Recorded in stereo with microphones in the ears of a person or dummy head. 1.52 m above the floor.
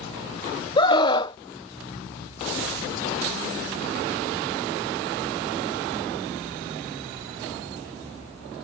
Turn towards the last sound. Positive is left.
turn(degrees=30)  # may be behind; listen again after turning